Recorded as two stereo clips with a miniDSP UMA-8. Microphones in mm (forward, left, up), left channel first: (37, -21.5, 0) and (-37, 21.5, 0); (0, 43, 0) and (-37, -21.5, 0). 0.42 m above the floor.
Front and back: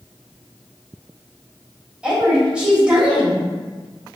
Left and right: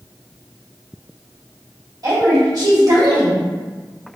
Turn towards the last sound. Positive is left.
turn(degrees=-135)